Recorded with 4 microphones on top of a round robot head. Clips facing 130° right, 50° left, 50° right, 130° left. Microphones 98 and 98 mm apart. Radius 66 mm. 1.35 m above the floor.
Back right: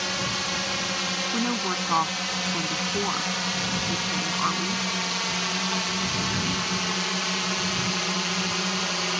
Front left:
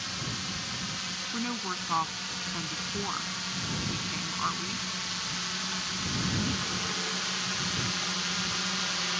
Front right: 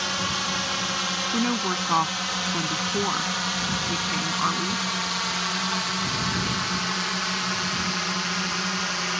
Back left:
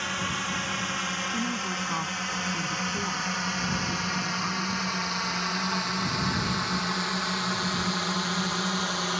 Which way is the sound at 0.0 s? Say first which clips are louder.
Back right 9 dB, front right 3 dB; 115° right.